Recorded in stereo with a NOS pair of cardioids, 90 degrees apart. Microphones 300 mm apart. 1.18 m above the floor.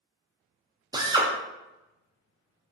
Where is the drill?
15° right, 0.5 m.